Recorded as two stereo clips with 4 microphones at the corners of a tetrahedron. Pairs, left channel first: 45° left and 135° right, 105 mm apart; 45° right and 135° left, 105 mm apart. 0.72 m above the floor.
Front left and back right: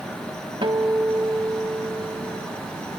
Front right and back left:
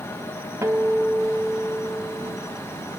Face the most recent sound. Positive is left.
turn(degrees=-165)